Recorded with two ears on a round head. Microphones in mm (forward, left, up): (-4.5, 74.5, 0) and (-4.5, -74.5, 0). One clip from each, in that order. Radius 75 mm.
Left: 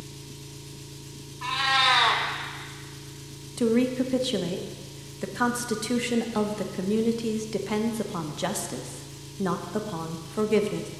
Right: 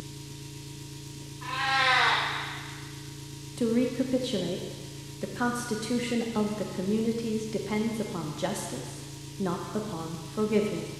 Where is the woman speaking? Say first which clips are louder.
Left 3 dB; 20° left (ahead or behind), 0.5 m.